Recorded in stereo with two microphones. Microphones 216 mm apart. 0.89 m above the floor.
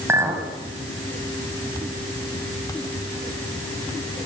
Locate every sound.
0.1 s a clink: 10° right (ahead or behind), 4.5 m